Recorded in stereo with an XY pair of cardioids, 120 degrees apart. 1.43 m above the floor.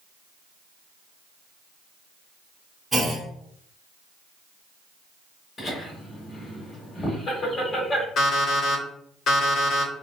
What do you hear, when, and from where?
2.9 s a clunk: 20° right, 1.1 m
5.6 s laughter: 35° left, 1.5 m
8.2 s an alarm clock: 60° left, 1.7 m